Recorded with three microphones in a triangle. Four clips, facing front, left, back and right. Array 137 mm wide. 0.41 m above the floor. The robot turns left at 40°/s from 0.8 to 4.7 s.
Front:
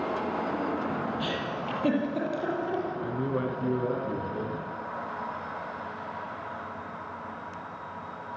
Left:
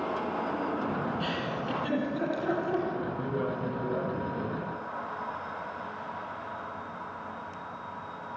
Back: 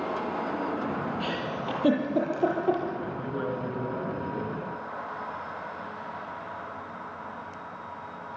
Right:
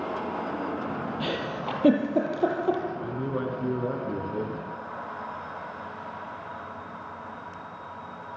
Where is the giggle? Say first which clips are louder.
Right 2 dB, even; 80° right, 7.5 m; by 2.8 s 145° right, 7.5 m.